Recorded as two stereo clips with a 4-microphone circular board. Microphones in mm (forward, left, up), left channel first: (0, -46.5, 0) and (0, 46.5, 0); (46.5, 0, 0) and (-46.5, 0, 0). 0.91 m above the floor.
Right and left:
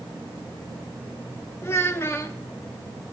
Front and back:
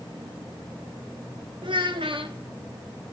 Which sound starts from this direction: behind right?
A child speaking, at 1.6 s.